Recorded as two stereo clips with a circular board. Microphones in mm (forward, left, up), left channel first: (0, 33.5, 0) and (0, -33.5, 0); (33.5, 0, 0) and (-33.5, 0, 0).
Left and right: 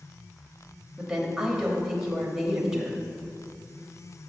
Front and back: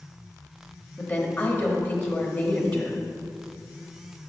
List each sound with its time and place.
1.0 s a woman speaking: 20° right, 1.1 m